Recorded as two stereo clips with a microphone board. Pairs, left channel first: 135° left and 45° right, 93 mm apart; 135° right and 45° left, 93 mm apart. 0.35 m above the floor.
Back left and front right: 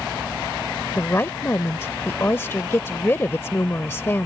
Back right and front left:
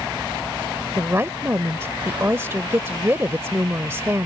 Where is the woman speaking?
90° left.